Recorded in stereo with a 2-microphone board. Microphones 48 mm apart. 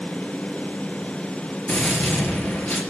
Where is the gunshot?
35° left (ahead or behind), 4.5 m.